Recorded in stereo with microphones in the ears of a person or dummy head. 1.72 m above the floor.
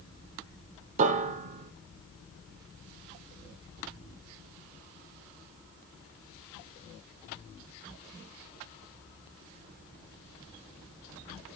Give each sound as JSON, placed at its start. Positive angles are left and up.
{"t": 1.0, "sound": "a piano", "side_deg": -45, "distance_m": 0.7}